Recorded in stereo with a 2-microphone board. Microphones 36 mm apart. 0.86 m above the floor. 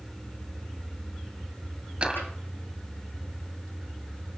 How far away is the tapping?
About 6.5 m.